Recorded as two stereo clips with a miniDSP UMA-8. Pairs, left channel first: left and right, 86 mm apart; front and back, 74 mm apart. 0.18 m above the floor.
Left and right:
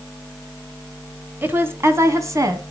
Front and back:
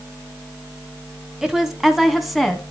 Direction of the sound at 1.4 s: 110° right.